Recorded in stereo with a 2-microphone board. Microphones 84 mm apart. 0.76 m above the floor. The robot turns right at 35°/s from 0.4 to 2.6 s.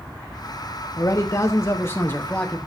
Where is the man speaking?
110° left, 1.0 m; by 2.6 s 165° left, 1.0 m.